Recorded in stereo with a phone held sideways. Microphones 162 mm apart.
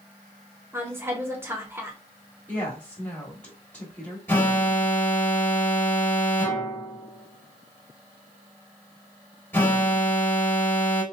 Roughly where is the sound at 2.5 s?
Centre.